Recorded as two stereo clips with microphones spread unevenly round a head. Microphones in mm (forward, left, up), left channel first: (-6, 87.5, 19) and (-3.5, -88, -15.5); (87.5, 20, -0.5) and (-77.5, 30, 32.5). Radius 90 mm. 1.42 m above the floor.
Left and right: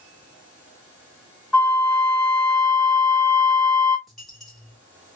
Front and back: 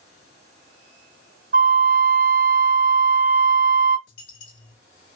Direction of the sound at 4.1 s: 10° left.